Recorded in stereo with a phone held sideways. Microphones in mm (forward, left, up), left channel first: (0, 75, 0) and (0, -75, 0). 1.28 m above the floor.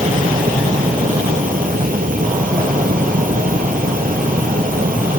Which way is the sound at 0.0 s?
65° right (ahead or behind).